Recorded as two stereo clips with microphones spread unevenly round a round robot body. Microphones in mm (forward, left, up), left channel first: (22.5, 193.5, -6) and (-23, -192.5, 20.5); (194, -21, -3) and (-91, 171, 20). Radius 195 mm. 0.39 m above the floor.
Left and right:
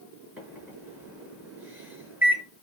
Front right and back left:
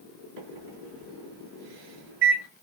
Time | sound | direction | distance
0.4 | a microwave | 175° left | 6 m